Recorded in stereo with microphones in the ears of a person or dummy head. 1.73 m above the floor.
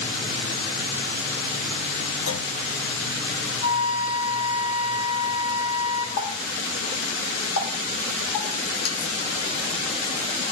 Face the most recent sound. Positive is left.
turn(degrees=55)  # may be behind; listen again after turning